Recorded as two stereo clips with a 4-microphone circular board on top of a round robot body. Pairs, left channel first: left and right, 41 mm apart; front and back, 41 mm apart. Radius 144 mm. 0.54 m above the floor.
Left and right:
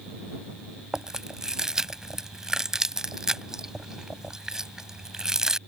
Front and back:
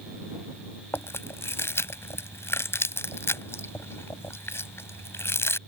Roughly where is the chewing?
Ahead.